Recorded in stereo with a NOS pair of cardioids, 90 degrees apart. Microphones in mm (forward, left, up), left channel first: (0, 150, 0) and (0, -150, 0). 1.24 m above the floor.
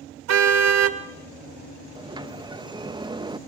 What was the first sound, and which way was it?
A car horn, 65° right.